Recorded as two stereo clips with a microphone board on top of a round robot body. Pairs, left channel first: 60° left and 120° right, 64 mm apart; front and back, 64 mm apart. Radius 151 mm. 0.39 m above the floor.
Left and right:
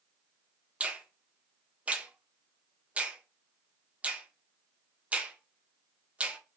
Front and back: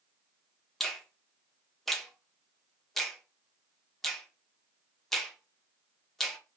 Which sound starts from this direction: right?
A finger snap, at 0.8 s.